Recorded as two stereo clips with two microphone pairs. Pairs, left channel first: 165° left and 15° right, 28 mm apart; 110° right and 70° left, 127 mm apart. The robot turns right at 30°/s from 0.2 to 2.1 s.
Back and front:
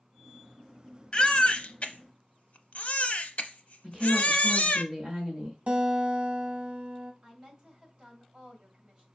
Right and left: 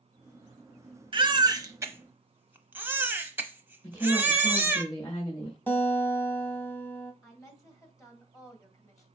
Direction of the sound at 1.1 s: 115° left.